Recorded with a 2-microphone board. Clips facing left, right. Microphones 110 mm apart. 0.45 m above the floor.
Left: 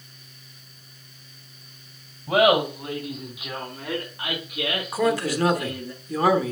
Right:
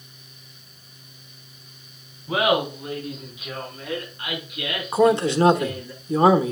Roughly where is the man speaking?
Right.